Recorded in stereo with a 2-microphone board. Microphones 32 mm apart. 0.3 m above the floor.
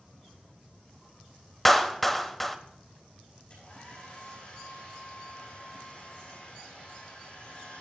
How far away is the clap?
About 0.8 m.